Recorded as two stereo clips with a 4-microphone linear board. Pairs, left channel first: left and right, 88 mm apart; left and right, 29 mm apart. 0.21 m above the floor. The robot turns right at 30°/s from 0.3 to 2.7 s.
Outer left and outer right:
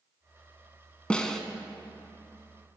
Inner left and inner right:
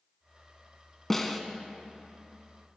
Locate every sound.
1.1 s a snare drum: 15° left (ahead or behind), 0.6 m; by 1.4 s 5° left (ahead or behind), 0.6 m